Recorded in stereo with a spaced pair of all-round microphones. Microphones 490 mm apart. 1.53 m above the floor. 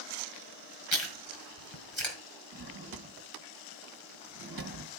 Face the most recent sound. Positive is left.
turn(degrees=-45)  # may be behind; listen again after turning